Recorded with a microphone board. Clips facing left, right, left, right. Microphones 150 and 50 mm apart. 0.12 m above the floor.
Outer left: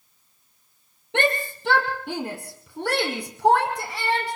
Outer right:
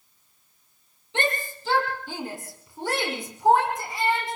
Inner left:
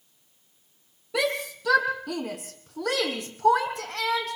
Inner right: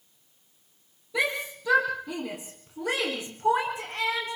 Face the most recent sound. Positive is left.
turn(degrees=70)  # may be behind; listen again after turning